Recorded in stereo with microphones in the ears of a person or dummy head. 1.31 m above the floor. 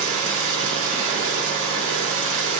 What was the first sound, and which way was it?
An engine running, 70° right (ahead or behind).